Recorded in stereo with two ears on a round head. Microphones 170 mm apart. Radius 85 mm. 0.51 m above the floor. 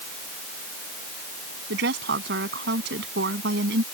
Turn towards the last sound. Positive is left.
turn(degrees=-60)  # may be behind; listen again after turning